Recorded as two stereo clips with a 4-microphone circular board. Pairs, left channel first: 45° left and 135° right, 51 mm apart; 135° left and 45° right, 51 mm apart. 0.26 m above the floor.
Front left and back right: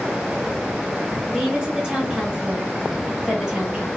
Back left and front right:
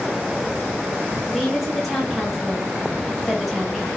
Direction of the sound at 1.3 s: 130° right.